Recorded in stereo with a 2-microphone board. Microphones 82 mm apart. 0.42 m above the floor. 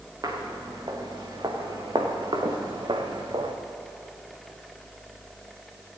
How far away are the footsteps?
About 3.5 m.